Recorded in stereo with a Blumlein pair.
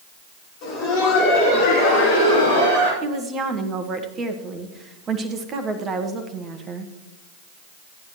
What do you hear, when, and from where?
0.6 s laughter: 40° left, 5.5 m; by 2.9 s 65° left, 6.5 m
3.0 s a woman speaking: 25° right, 1.4 m